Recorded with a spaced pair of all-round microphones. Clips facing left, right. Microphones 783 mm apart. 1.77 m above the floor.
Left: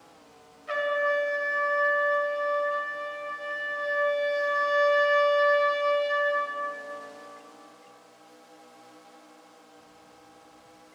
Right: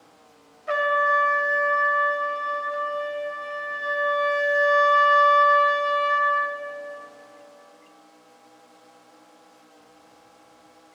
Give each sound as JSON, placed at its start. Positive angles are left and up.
{"t": 0.7, "sound": "a trumpet", "side_deg": -65, "distance_m": 1.1}